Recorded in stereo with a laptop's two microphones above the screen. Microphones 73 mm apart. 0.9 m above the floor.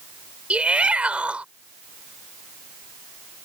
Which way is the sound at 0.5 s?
15° right (ahead or behind).